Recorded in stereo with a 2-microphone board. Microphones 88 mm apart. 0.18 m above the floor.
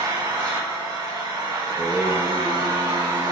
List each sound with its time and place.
0.0 s an engine running: 35° right (ahead or behind), 1.3 m
1.6 s singing: 40° right (ahead or behind), 1.2 m